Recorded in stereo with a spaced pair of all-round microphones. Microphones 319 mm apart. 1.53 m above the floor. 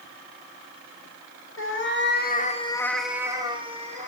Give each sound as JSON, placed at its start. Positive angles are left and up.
{"t": 1.6, "sound": "a cat meowing", "side_deg": 40, "distance_m": 1.2}